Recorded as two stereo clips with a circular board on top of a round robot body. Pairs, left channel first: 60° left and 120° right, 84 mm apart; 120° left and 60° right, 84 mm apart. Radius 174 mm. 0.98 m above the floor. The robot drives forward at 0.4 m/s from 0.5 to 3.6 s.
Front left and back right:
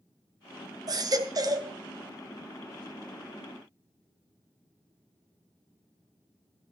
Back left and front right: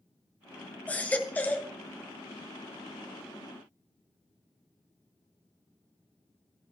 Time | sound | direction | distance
0.9 | a baby crying | 165° right | 1.6 m